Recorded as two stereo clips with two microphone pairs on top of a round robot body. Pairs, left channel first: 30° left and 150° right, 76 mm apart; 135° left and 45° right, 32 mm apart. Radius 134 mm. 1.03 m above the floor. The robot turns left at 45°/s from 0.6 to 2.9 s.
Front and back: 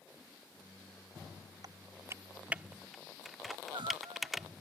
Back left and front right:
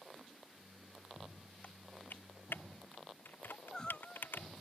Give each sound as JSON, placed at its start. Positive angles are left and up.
{"t": 1.6, "sound": "typing on a keyboard", "azimuth_deg": 175}
{"t": 3.5, "sound": "crying", "azimuth_deg": -160}